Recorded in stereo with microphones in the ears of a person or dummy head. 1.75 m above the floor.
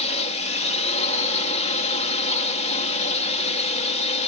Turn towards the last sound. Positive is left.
turn(degrees=40)  # may be behind; listen again after turning